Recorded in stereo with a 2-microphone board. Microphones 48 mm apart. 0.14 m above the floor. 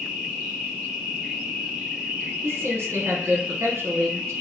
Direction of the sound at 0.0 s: 20° right (ahead or behind).